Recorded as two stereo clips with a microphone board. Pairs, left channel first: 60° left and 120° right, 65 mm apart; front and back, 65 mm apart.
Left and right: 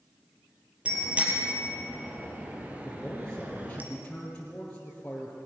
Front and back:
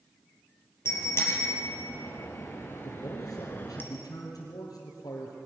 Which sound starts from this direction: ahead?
A man speaking, at 2.8 s.